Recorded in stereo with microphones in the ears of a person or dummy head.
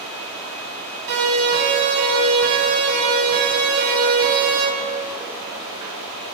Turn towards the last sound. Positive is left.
turn(degrees=-55)  # may be behind; listen again after turning